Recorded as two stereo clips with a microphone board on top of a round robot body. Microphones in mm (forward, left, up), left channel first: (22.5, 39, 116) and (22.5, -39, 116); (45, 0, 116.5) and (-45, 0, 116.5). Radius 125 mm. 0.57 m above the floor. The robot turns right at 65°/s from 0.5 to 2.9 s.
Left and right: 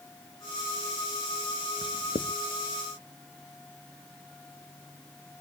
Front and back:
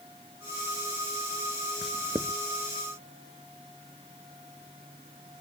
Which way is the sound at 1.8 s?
90° left.